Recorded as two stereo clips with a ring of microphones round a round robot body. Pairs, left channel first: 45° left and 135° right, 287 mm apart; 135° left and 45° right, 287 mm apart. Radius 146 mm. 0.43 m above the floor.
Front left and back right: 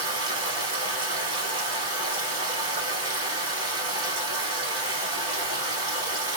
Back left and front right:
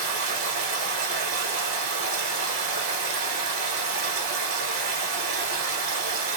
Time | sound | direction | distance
0.0 | running water | 60° right | 1.5 m